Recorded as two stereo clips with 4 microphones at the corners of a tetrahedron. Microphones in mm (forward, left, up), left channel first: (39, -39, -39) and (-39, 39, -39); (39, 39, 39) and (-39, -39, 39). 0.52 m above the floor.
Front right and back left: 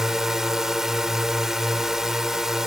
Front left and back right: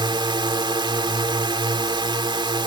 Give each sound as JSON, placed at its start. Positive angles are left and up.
{"t": 0.0, "sound": "a drone", "azimuth_deg": -140}